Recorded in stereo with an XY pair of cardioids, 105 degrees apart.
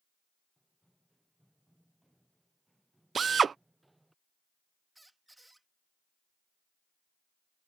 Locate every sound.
0.6 s running footsteps: straight ahead; by 4.2 s 10° right
3.1 s a drill: 40° right
5.0 s a squeak: 10° right